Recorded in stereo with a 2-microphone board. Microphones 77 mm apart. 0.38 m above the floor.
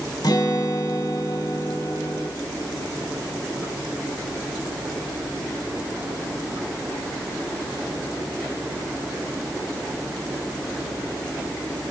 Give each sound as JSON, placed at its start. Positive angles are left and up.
{"t": 0.2, "sound": "a guitar", "side_deg": 60, "distance_m": 2.0}